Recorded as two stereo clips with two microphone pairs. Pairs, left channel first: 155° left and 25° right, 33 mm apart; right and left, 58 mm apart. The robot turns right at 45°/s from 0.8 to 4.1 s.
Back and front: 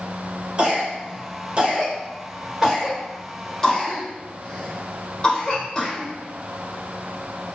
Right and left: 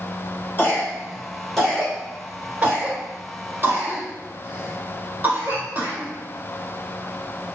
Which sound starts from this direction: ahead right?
A cough, at 0.6 s.